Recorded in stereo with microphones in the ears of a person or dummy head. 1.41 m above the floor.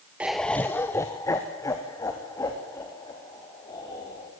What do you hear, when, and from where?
0.2 s laughter: 5° right (ahead or behind), 0.5 m; by 4.3 s 20° left (ahead or behind), 5.5 m